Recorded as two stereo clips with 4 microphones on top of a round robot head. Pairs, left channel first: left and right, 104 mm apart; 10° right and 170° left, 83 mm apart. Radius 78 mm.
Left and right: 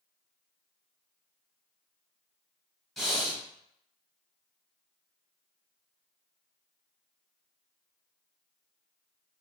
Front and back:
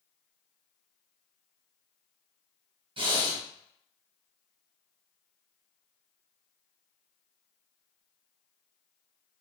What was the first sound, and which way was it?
Breathing, straight behind.